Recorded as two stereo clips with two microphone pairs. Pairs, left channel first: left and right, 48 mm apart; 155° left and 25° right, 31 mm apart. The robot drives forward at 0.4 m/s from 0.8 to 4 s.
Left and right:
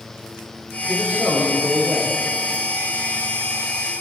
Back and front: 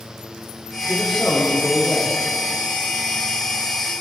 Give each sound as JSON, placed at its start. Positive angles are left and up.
{"t": 0.8, "sound": "a man speaking", "azimuth_deg": -130, "distance_m": 8.0}